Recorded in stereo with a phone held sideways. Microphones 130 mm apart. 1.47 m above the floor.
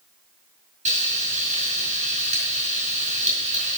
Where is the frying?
70° right (ahead or behind), 4.5 m.